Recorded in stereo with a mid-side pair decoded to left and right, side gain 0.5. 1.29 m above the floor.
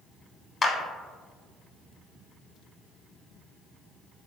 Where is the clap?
30° left, 0.8 m.